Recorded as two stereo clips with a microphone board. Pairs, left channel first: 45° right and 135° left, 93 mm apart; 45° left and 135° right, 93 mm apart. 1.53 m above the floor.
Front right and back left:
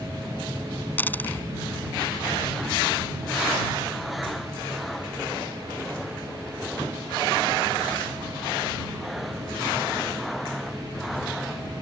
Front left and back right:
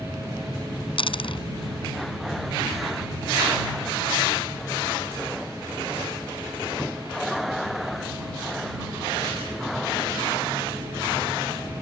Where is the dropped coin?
25° left.